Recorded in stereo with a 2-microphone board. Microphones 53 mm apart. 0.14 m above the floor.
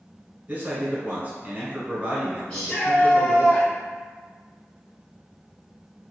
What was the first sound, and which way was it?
A man speaking, 25° right (ahead or behind).